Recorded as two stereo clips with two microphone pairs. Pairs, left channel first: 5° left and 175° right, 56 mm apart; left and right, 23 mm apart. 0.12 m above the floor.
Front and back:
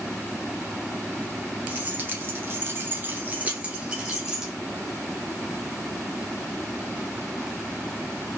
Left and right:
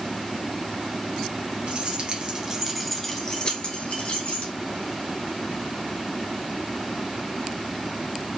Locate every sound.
1.7 s keys jangling: 120° right, 1.3 m; by 4.5 s 105° left, 1.8 m